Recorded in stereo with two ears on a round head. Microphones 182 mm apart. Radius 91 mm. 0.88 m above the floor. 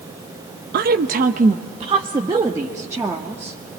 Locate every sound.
0.7 s a woman speaking: 50° right (ahead or behind), 0.7 m; by 3.5 s 10° right (ahead or behind), 1.9 m